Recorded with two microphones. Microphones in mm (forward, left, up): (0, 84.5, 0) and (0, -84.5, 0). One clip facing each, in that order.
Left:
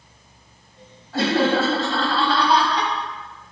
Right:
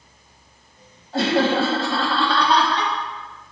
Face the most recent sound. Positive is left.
turn(degrees=20)  # may be behind; listen again after turning